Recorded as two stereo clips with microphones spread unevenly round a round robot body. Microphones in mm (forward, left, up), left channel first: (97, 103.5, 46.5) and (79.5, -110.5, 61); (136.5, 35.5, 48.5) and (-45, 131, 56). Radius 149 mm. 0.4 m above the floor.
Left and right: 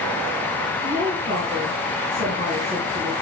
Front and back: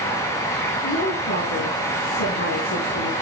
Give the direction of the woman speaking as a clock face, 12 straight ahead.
2 o'clock.